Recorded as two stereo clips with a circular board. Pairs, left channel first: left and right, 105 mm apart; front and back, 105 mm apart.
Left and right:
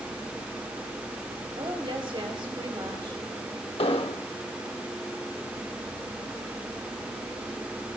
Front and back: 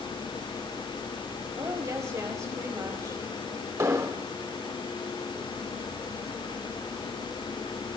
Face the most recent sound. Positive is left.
turn(degrees=120)